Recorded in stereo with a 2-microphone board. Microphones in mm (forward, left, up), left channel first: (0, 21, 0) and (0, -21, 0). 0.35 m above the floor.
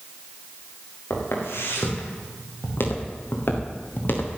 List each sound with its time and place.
1.1 s footsteps: 85° left, 5 m; by 4.4 s 55° left (ahead or behind), 3.5 m